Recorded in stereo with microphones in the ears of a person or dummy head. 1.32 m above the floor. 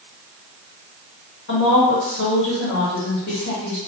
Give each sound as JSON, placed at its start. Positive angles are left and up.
{"t": 1.5, "sound": "a woman speaking", "side_deg": 65, "distance_m": 1.4}